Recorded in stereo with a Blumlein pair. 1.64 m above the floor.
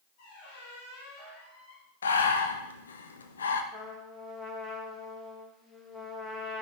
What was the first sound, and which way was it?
A squeak, 45° left.